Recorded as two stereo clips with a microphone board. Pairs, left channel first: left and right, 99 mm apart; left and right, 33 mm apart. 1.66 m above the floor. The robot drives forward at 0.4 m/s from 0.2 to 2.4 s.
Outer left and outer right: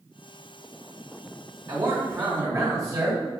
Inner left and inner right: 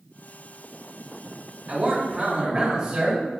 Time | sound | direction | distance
1.7 | a man speaking | 45° right (ahead or behind) | 1.5 m